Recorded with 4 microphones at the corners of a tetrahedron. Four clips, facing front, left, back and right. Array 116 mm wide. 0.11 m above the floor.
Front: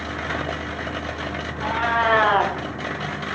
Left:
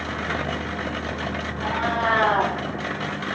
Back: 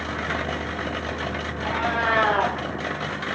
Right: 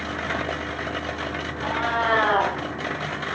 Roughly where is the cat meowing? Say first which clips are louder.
Even, front 4 dB; ahead.